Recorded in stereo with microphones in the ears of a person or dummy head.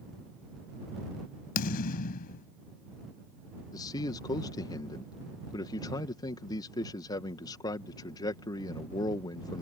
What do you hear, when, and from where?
1.6 s a thud: 50° left (ahead or behind)
3.7 s a man speaking: 20° left (ahead or behind)